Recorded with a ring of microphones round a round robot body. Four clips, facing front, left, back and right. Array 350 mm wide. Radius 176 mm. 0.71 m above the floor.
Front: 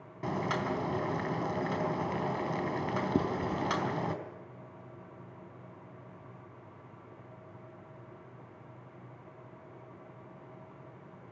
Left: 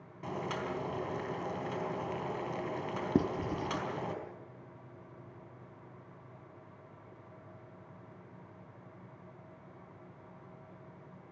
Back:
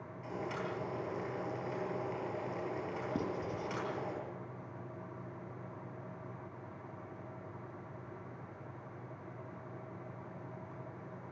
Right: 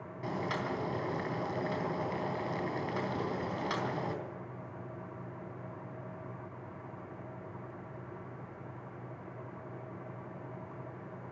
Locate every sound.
0.2 s boiling: 10° right, 4 m
3.1 s writing: 60° left, 1.8 m